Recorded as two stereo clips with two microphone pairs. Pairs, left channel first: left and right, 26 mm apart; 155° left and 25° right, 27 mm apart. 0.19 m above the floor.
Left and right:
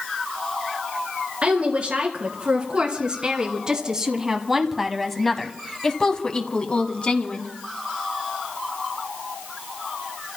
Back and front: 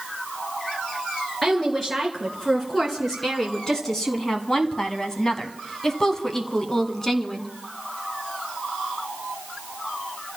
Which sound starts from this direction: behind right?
A woman speaking, at 1.4 s.